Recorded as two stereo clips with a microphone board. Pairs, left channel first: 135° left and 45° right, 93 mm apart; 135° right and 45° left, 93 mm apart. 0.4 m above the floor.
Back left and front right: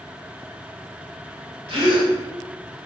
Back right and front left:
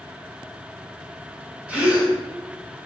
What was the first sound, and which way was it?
A gasp, 30° right.